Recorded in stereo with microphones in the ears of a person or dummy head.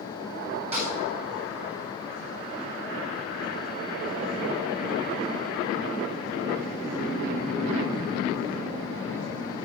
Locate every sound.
0.7 s a snare drum: 25° right (ahead or behind), 4 m